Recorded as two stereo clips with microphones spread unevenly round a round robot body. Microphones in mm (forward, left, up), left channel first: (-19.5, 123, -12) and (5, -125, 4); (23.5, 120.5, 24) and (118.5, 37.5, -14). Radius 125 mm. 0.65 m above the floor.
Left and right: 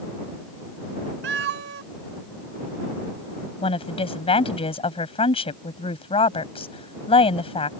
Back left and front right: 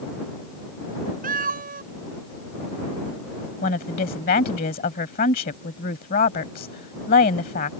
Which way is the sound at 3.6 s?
165° left.